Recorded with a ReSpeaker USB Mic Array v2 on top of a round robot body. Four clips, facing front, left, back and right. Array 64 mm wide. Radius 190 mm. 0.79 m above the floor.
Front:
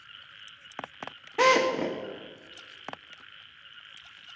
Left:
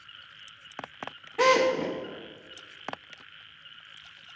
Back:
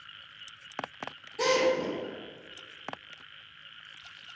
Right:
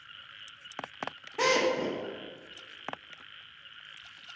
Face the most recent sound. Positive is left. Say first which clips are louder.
# left 4 dB, front 3 dB
turn(degrees=0)